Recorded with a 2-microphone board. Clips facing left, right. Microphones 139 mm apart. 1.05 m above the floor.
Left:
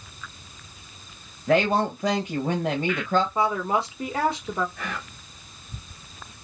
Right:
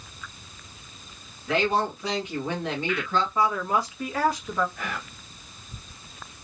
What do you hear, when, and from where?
1.5 s a woman speaking: 45° left (ahead or behind), 1.0 m
3.4 s a woman speaking: 25° left (ahead or behind), 1.3 m
4.8 s whispering: centre (ahead or behind), 0.7 m